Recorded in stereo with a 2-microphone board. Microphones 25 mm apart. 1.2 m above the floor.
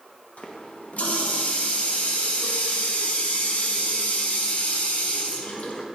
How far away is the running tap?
About 0.8 m.